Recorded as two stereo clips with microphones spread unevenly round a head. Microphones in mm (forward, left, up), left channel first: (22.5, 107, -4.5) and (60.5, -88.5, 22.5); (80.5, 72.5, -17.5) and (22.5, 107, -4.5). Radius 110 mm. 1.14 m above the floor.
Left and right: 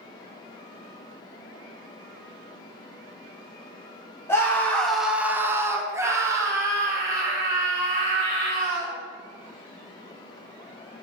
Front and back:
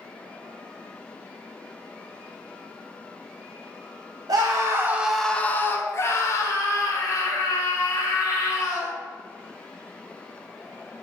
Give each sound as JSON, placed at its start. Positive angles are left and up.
{"t": 4.3, "sound": "a scream", "azimuth_deg": 170, "distance_m": 1.0}